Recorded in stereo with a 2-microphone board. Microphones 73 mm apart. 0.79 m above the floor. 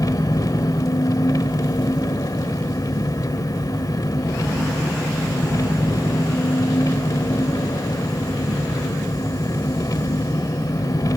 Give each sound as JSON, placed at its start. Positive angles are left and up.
{"t": 0.0, "sound": "an engine running", "side_deg": 55, "distance_m": 1.1}